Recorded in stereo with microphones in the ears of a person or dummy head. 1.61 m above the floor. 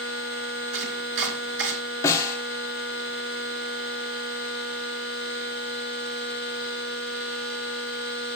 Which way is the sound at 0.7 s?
65° right (ahead or behind).